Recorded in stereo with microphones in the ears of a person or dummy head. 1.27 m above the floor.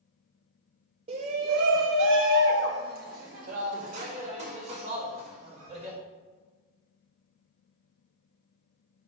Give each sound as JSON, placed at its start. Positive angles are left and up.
{"t": 1.1, "sound": "a shout", "side_deg": -35, "distance_m": 0.6}